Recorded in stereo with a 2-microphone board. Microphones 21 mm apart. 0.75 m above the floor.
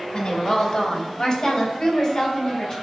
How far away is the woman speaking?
About 2.5 m.